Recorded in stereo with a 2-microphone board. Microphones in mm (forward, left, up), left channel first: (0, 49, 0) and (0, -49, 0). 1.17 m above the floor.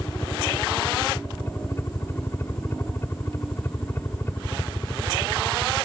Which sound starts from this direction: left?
A helicopter, at 0.0 s.